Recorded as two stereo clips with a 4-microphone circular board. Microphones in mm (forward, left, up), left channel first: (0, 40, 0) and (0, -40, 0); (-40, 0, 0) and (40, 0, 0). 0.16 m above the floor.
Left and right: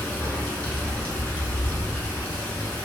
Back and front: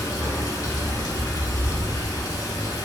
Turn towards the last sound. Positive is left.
turn(degrees=155)